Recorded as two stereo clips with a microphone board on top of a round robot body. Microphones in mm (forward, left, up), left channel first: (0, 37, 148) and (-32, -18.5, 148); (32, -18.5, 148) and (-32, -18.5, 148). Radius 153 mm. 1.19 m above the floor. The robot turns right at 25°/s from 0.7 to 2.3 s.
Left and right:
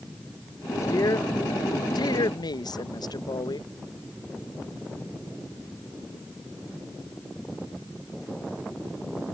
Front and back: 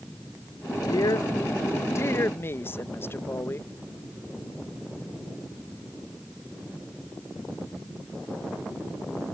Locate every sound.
0.8 s a woman speaking: 20° left; by 3.7 s 55° left